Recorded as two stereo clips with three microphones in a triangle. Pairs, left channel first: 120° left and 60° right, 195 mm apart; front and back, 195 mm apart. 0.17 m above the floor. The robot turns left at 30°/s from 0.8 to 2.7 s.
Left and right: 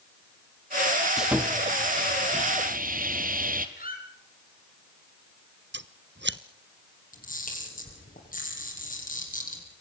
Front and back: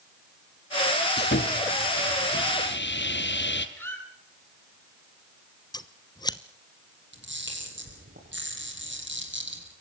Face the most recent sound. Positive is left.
turn(degrees=165)